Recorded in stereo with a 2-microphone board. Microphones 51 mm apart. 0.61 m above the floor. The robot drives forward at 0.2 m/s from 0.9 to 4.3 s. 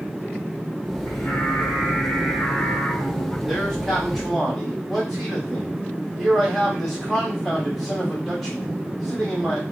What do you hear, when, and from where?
1.1 s singing: 70° left (ahead or behind), 1.1 m; by 3.4 s 55° left (ahead or behind), 1.3 m
3.5 s a man speaking: centre (ahead or behind), 1.5 m